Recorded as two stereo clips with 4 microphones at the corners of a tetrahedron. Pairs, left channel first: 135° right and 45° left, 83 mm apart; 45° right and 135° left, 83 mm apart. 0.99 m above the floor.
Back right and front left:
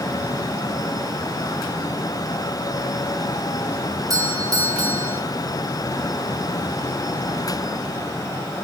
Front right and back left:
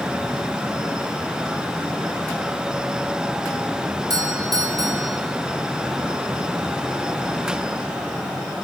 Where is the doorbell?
90° left, 4.5 m.